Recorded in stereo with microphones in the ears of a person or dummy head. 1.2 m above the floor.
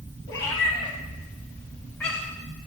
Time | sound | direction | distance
0.3 | a cat meowing | 20° left (ahead or behind) | 4 m